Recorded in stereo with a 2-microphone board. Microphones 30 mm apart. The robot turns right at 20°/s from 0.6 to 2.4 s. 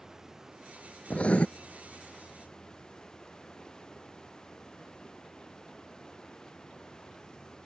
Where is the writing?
45° left (ahead or behind); by 1.5 s 40° left (ahead or behind).